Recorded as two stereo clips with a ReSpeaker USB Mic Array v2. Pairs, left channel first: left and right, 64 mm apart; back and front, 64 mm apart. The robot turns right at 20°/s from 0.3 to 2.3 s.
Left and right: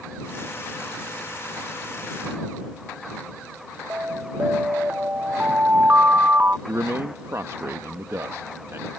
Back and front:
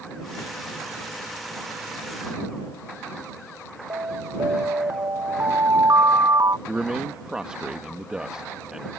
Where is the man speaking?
70° right.